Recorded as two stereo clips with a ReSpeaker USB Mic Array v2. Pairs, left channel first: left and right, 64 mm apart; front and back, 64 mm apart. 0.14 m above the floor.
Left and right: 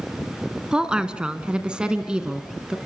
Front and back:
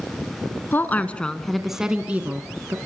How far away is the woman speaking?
About 1.7 m.